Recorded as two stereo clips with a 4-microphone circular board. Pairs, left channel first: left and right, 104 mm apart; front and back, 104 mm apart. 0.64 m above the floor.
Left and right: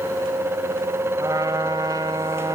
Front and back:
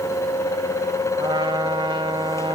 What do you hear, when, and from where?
1.2 s a trumpet: 140° right, 1.2 m